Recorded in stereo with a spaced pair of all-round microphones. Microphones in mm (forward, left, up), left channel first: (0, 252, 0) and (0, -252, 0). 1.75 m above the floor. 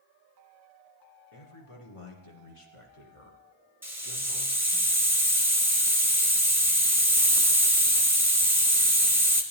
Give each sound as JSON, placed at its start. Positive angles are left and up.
{"t": 1.3, "sound": "a man speaking", "side_deg": 90, "distance_m": 1.9}
{"t": 3.8, "sound": "a hiss", "side_deg": -5, "distance_m": 1.2}